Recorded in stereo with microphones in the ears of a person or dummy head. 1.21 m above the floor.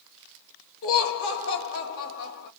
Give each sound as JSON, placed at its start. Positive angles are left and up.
{"t": 0.8, "sound": "laughter", "side_deg": 70, "distance_m": 2.0}